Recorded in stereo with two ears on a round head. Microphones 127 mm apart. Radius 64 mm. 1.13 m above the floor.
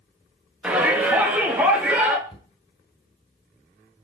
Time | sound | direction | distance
0.6 | a shout | 10° right (ahead or behind) | 1.8 m
2.3 | a cupboard door | 40° left (ahead or behind) | 3 m